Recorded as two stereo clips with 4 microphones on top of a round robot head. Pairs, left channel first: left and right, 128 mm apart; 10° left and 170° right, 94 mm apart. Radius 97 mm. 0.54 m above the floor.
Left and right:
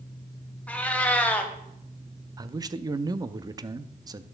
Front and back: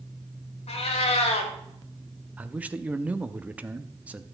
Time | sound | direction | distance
0.7 | a cat meowing | 10° left | 1.6 m
2.4 | a man speaking | 110° right | 0.7 m